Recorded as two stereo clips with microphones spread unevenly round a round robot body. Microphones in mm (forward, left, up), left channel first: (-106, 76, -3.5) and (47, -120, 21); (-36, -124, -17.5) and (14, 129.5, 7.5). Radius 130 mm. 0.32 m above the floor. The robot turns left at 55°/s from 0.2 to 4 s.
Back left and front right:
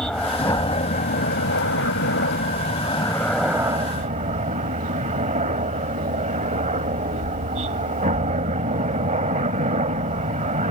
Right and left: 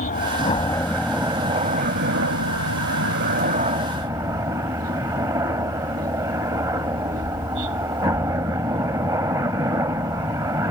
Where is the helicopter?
145° right; by 10.7 s 5° left.